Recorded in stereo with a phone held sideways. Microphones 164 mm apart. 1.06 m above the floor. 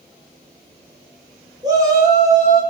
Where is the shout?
25° right (ahead or behind), 5.5 m.